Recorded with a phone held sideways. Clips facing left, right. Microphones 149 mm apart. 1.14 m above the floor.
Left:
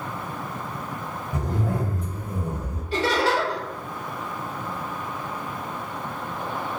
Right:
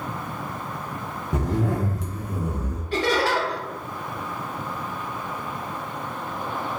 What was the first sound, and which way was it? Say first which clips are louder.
A zipper: right 3 dB; 80° right.